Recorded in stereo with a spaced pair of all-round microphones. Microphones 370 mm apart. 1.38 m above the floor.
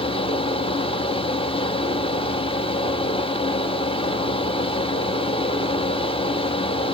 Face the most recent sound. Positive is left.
turn(degrees=15)  # may be behind; listen again after turning